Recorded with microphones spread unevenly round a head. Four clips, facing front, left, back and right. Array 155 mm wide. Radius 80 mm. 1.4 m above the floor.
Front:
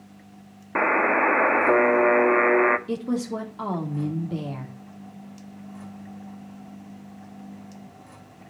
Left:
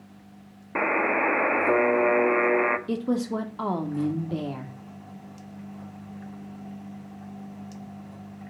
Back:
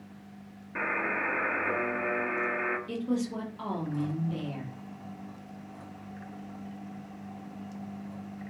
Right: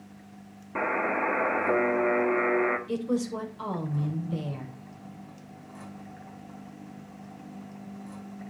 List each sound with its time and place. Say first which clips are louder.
0.8 s a buzzer: left 3 dB, front 11 dB; 25° left, 1.0 m
2.9 s a woman speaking: left 2 dB, front 4 dB; 65° left, 4 m